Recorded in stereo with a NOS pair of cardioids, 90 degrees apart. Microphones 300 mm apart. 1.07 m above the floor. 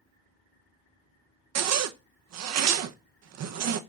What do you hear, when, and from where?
1.6 s a zipper: 60° right, 0.6 m